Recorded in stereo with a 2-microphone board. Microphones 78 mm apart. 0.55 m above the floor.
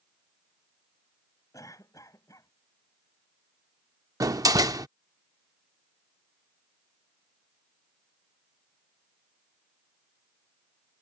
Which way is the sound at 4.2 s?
50° right (ahead or behind).